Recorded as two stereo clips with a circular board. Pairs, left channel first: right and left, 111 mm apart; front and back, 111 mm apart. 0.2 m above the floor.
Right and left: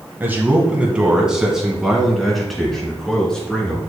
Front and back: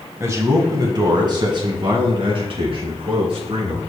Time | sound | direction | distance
0.2 | a man speaking | 145° left | 1.8 m